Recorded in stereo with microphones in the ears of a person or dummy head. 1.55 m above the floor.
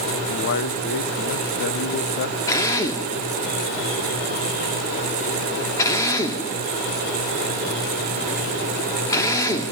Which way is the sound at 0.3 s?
55° left (ahead or behind).